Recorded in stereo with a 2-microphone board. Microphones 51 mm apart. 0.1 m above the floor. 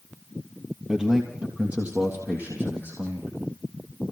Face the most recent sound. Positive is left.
turn(degrees=-45)  # may be behind; listen again after turning